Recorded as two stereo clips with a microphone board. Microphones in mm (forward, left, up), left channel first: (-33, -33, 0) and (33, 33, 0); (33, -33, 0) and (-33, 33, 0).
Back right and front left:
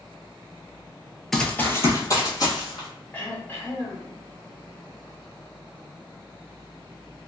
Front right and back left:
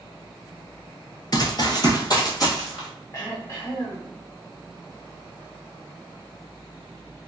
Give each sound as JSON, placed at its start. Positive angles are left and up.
{"t": 1.3, "sound": "running footsteps", "azimuth_deg": -50, "distance_m": 0.6}
{"t": 3.1, "sound": "throat clearing", "azimuth_deg": -80, "distance_m": 1.0}